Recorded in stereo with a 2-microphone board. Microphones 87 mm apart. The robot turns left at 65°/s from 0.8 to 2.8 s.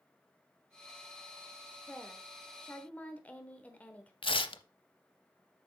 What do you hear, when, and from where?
1.9 s a woman speaking: 15° left (ahead or behind), 1.0 m
4.2 s tearing paper: 80° left, 0.6 m